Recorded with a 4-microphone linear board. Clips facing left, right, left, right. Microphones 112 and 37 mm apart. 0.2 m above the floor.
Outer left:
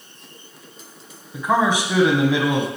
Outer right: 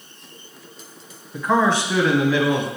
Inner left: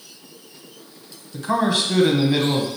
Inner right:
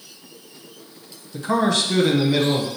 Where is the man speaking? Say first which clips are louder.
Even, even; 10° left (ahead or behind), 1.4 m; by 2.7 s 25° left (ahead or behind), 1.5 m.